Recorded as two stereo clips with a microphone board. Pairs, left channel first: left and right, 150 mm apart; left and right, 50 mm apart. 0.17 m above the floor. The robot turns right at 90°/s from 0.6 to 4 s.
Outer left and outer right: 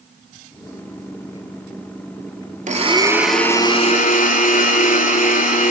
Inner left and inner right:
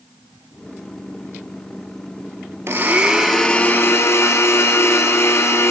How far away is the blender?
About 0.8 m.